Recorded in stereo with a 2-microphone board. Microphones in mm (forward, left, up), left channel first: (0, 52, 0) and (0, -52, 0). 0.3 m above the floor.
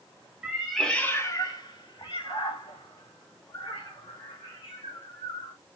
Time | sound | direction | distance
0.4 | a cat meowing | 10° right (ahead or behind) | 0.7 m